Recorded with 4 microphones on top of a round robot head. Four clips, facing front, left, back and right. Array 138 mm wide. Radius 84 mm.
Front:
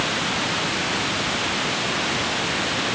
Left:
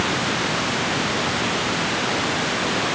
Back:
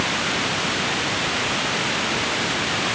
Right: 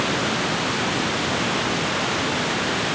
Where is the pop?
No pop in this recording.